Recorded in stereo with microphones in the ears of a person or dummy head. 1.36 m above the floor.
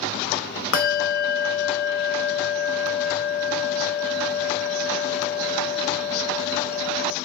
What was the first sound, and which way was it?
A bell, 50° left (ahead or behind).